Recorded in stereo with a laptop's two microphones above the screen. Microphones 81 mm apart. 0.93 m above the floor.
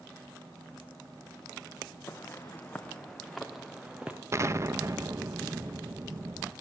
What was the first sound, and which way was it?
Footsteps, 30° left (ahead or behind).